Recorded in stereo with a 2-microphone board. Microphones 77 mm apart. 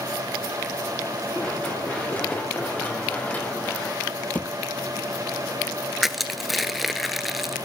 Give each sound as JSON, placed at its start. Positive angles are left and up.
{"t": 1.4, "sound": "running footsteps", "side_deg": 15, "distance_m": 4.5}
{"t": 4.3, "sound": "a thud", "side_deg": 20, "distance_m": 1.0}
{"t": 6.0, "sound": "crushing", "side_deg": 0, "distance_m": 0.9}